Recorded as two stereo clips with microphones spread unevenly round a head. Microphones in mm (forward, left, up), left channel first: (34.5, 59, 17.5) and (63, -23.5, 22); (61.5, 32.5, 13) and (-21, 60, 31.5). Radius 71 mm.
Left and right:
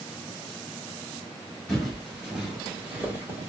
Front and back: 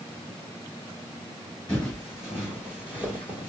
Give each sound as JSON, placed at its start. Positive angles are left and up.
{"t": 1.7, "sound": "footsteps", "azimuth_deg": 40, "distance_m": 1.3}